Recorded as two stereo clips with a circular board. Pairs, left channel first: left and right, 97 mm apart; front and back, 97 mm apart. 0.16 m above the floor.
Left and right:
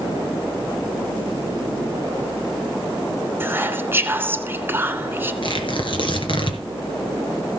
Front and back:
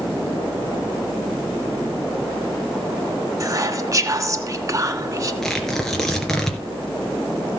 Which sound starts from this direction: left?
Tearing paper, at 5.4 s.